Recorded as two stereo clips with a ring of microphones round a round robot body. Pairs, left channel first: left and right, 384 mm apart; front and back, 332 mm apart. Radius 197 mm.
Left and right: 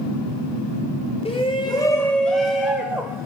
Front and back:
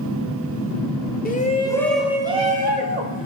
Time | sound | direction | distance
1.2 | a shout | 30° left | 1.0 m